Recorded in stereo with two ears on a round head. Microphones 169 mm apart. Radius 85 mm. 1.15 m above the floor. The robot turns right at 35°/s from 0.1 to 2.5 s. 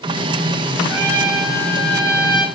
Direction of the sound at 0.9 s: 100° right.